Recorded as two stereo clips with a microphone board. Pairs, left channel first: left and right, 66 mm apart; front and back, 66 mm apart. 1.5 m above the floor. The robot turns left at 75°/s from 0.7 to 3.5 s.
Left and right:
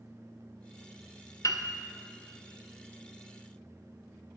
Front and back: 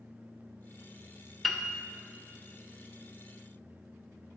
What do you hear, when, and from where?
1.4 s a piano: 90° left, 0.6 m; by 1.7 s 75° left, 0.6 m